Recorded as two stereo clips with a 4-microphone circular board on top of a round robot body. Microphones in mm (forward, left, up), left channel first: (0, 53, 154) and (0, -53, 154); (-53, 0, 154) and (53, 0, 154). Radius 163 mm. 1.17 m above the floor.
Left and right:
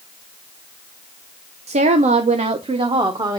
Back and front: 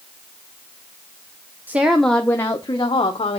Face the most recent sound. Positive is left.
turn(degrees=-145)